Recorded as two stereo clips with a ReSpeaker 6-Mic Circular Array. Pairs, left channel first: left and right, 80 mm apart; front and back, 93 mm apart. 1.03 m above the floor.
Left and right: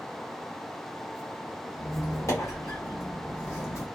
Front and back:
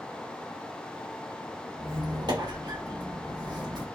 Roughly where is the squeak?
Behind left.